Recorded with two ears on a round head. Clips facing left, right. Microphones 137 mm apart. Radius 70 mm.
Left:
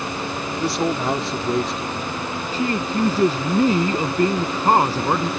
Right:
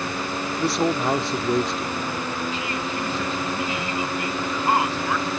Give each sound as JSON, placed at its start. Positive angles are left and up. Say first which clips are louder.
{"t": 0.6, "sound": "a man speaking", "louder": "even", "side_deg": 0}
{"t": 2.5, "sound": "a man speaking", "louder": "left 6 dB", "side_deg": 35}